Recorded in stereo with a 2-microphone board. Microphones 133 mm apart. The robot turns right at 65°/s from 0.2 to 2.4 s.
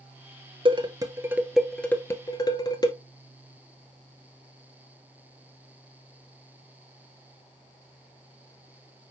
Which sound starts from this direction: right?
Dishes clattering, at 0.7 s.